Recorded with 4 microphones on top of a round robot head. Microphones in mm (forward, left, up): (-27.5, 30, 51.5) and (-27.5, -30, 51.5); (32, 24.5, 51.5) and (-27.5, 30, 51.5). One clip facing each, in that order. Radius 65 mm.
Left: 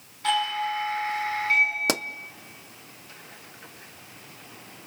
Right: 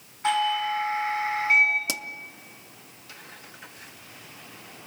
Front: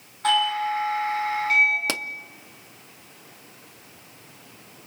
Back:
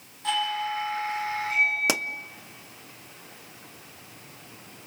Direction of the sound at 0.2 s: 20° right.